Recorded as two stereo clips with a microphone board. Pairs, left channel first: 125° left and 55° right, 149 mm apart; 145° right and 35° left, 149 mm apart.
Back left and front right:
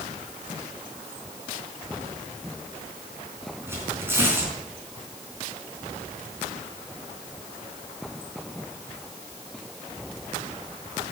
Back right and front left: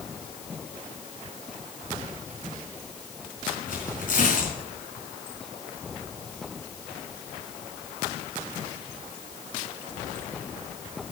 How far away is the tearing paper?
About 3.5 m.